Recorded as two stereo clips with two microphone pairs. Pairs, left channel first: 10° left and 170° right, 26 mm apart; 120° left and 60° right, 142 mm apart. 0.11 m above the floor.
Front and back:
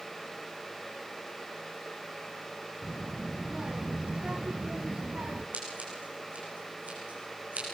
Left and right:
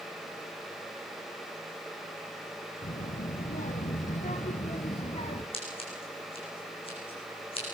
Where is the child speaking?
135° left, 3 m; by 5.4 s 165° left, 2.5 m.